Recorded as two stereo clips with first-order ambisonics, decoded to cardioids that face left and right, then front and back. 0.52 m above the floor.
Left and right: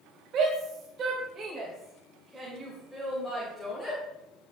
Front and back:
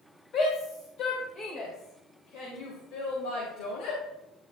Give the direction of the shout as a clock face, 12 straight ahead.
2 o'clock.